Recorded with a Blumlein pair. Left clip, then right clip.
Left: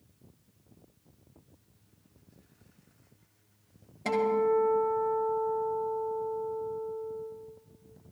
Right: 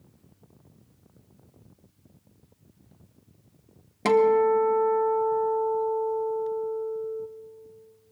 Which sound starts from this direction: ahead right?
A guitar, at 4.0 s.